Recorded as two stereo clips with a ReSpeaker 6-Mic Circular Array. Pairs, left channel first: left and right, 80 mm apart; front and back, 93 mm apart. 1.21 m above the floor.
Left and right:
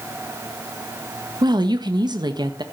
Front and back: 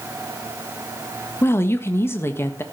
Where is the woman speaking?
65° right, 1.4 m.